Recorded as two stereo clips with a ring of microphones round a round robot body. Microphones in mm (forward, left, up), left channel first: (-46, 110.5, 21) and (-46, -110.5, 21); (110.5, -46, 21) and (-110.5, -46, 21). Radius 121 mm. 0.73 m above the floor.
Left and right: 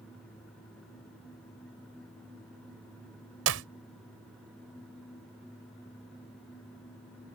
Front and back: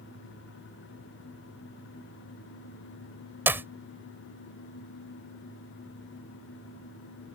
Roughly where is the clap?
Right.